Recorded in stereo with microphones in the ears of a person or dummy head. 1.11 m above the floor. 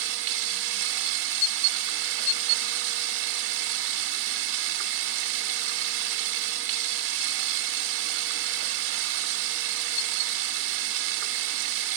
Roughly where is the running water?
Right.